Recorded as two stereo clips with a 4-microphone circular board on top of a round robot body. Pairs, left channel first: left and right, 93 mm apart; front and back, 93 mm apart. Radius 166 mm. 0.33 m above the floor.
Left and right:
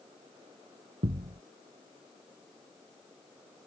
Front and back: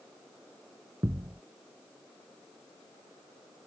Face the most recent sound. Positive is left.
turn(degrees=-115)